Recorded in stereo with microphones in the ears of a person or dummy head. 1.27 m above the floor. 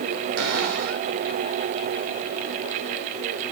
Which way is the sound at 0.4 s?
80° right.